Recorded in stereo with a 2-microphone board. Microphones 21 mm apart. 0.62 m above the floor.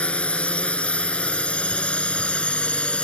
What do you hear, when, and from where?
0.0 s a drone: 85° left; by 3.0 s 75° left (ahead or behind)